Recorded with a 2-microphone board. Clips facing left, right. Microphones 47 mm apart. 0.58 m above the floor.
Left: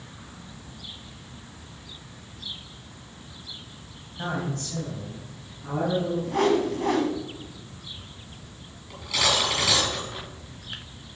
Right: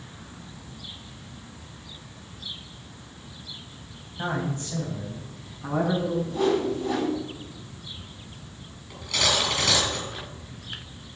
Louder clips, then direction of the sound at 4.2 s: Right 1 dB; 10° right (ahead or behind).